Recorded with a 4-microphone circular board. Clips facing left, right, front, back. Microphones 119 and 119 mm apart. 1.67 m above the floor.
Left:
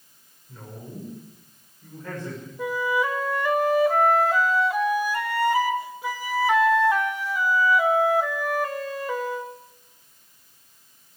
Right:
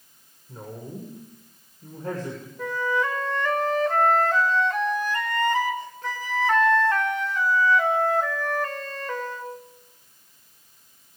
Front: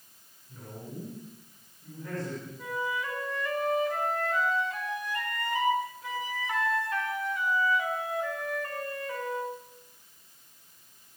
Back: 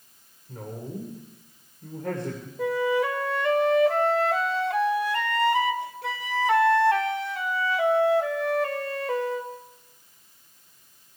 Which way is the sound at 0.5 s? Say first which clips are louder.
Right 3 dB, back 7 dB; 145° right.